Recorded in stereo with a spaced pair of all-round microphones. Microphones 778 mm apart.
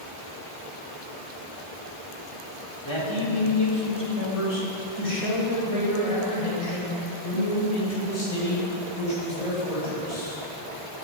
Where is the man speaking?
35° left (ahead or behind), 3 m; by 10.4 s 60° left (ahead or behind), 6.5 m.